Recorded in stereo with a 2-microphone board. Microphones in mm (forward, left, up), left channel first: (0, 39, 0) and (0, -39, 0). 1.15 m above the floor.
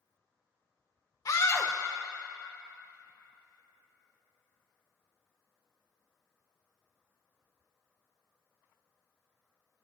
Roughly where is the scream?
Left.